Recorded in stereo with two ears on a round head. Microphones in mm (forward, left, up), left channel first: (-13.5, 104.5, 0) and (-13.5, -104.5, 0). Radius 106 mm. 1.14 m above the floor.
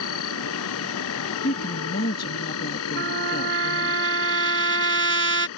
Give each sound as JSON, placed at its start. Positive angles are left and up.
{"t": 0.0, "sound": "an insect", "side_deg": 75}
{"t": 1.4, "sound": "a woman speaking", "side_deg": 40}
{"t": 3.0, "sound": "a trumpet", "side_deg": -50}